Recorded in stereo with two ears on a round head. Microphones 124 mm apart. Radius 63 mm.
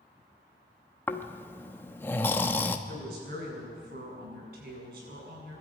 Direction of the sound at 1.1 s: 15° left (ahead or behind).